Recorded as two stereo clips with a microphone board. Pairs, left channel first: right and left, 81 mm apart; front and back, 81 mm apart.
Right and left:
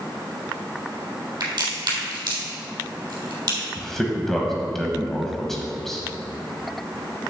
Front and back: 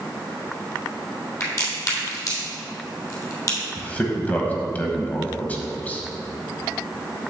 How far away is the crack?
About 3 m.